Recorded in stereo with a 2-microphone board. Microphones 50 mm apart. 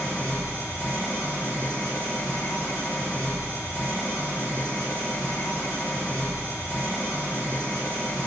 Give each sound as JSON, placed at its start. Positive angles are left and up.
{"t": 0.0, "sound": "an engine running", "side_deg": 65, "distance_m": 1.5}